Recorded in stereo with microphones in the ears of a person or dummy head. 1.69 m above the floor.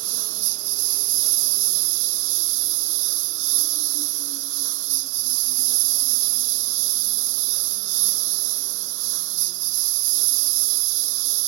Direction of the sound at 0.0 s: 75° right (ahead or behind).